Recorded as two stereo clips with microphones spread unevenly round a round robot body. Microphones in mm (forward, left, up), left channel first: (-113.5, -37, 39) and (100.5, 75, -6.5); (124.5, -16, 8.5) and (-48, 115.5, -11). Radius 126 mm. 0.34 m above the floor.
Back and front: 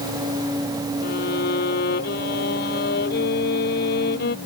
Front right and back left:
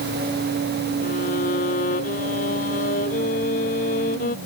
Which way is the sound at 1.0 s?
100° right.